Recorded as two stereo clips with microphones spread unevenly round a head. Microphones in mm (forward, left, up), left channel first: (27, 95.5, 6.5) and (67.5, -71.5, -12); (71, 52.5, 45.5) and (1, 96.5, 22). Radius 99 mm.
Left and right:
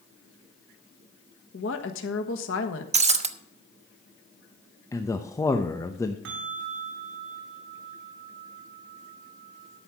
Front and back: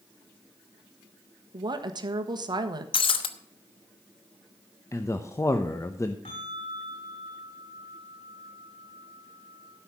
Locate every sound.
1.5 s a woman speaking: 135° left, 1.4 m
2.9 s breaking glass: 20° right, 0.9 m
4.9 s a man speaking: 25° left, 0.9 m
6.2 s a bell: 75° right, 2.0 m